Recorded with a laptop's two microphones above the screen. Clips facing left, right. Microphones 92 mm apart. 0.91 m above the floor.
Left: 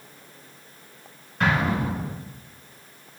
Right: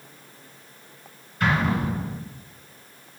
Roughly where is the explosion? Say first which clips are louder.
Even; left.